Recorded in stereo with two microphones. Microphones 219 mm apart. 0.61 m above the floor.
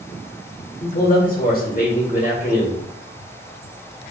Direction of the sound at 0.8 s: 40° left (ahead or behind).